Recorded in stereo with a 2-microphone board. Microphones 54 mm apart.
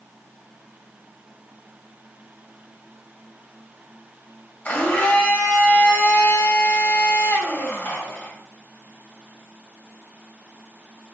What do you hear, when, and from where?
4.7 s a blender: 35° left (ahead or behind), 1.4 m